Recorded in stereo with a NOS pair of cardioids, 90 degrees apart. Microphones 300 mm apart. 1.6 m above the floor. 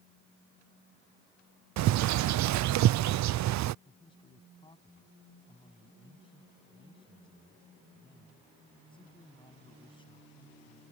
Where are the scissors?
I don't hear scissors.